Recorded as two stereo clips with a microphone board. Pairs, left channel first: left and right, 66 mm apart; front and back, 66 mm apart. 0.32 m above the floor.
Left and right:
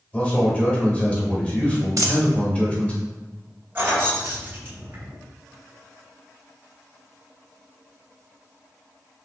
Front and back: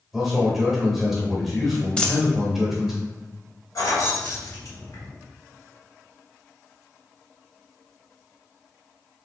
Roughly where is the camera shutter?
No camera shutter in this recording.